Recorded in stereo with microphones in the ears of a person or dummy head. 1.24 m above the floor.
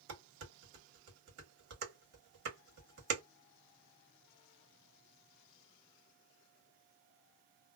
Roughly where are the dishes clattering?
Right.